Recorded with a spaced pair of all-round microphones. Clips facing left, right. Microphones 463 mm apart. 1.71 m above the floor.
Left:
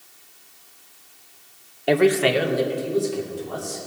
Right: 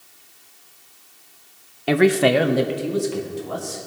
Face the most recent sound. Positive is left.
turn(degrees=-70)  # may be behind; listen again after turning